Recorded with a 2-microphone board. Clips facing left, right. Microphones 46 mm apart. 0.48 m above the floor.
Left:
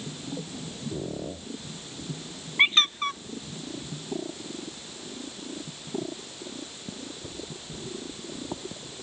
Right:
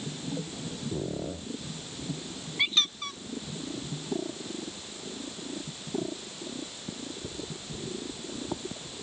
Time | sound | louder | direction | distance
2.6 | a squeak | left 7 dB | 40° left (ahead or behind) | ?